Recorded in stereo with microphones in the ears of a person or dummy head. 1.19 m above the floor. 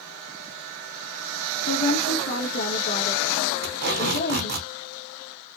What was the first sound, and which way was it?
A woman speaking, 45° left (ahead or behind).